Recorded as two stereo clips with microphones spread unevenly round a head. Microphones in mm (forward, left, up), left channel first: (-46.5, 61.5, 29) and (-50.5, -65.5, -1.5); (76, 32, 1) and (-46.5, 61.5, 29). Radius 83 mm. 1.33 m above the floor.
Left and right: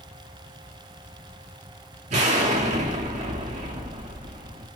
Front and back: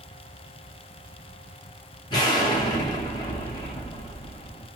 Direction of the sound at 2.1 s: 70° right.